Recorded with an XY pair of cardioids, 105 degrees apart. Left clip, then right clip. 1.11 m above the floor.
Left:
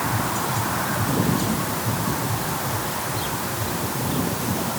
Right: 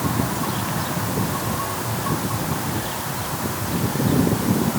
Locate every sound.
Only background noise.